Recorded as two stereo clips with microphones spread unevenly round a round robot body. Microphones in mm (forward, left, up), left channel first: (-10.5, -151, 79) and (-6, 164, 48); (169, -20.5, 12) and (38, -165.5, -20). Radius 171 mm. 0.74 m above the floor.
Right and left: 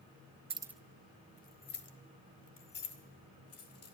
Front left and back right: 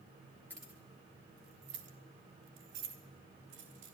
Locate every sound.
0.5 s keys jangling: 140° left, 0.6 m; by 4.0 s 135° right, 2.5 m